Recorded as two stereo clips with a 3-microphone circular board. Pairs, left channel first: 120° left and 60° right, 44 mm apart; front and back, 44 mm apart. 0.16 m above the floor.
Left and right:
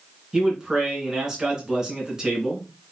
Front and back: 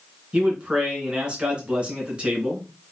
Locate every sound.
0.3 s a man speaking: 125° right, 2 m